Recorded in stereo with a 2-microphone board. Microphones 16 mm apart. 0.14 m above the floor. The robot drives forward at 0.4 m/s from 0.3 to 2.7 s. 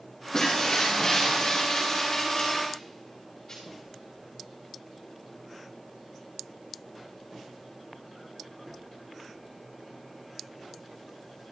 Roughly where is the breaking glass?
Left.